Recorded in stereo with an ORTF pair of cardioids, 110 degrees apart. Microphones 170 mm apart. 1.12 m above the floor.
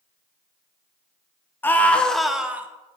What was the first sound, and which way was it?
A scream, 10° left.